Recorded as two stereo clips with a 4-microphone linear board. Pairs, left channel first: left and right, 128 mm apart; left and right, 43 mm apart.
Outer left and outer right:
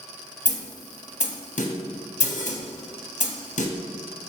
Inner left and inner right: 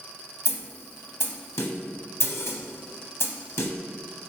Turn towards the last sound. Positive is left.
turn(degrees=70)  # may be behind; listen again after turning